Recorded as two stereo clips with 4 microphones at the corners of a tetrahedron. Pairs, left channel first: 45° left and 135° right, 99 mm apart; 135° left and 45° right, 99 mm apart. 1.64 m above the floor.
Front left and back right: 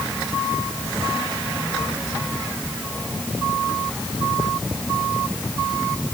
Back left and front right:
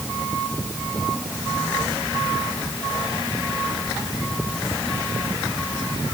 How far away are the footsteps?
I don't hear footsteps.